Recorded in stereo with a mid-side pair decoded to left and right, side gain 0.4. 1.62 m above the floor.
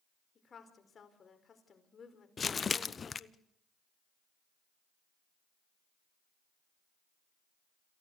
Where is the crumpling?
45° left, 0.9 m.